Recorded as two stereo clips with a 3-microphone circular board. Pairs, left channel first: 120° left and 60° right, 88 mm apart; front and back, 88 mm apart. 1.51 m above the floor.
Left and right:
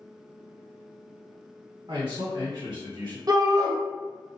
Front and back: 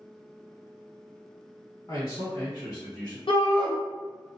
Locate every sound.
1.9 s a man speaking: 45° right, 1.6 m; by 3.2 s 65° right, 1.1 m
3.3 s a shout: 15° right, 0.9 m